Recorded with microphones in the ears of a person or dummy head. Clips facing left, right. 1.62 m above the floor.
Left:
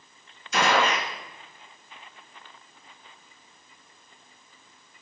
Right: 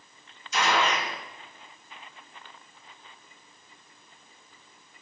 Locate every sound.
0.5 s a gunshot: 50° left (ahead or behind), 2 m